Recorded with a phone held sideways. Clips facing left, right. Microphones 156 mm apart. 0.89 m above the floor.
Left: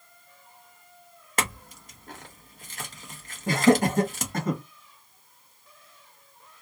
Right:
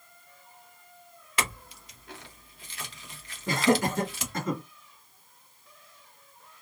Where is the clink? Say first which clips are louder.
Left 2 dB; 45° left (ahead or behind), 0.7 m.